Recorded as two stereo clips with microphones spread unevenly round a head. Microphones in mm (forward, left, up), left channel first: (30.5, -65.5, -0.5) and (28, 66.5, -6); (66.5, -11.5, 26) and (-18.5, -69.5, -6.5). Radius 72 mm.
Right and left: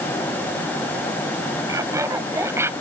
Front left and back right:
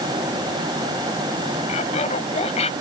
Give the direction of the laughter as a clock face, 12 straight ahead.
11 o'clock.